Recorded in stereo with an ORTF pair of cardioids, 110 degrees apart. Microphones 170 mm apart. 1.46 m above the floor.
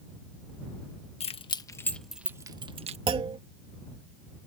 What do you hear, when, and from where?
1.2 s keys jangling: 40° left; by 3.0 s 40° right
3.1 s a clunk: 30° right